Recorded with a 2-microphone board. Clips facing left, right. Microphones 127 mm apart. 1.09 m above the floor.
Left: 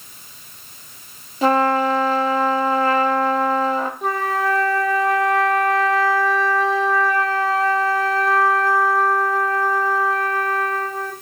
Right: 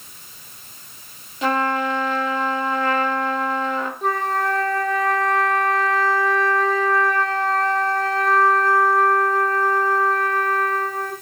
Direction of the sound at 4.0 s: 5° left (ahead or behind).